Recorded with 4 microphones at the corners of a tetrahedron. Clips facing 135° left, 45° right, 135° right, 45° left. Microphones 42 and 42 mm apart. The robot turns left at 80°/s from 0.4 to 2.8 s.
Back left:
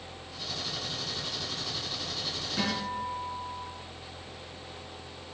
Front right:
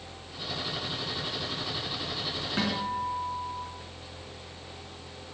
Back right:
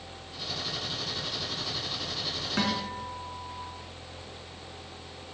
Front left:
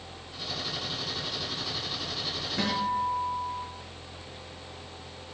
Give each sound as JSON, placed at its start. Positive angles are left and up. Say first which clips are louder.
{"t": 2.6, "sound": "a guitar", "louder": "front right 2 dB, front left 4 dB", "azimuth_deg": -100, "distance_m": 5.5}